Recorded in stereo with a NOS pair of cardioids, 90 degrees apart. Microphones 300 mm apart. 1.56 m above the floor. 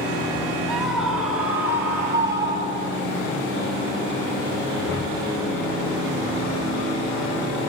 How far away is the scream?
About 4 m.